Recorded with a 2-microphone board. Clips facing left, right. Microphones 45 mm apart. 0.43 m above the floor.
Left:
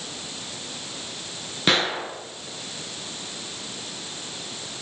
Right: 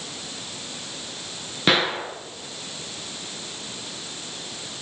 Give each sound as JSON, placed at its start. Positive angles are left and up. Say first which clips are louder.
{"t": 1.7, "sound": "a gunshot", "louder": "right 1 dB", "side_deg": -5, "distance_m": 2.5}